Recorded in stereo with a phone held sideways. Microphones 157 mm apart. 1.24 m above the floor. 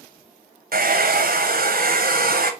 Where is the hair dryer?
65° right (ahead or behind), 0.8 m.